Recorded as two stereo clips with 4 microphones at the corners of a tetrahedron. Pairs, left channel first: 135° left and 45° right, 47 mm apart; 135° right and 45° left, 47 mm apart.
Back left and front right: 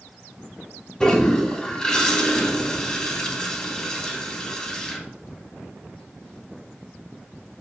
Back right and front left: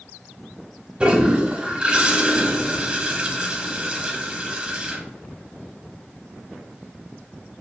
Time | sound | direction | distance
1.0 | a toilet flushing | 80° left | 0.5 m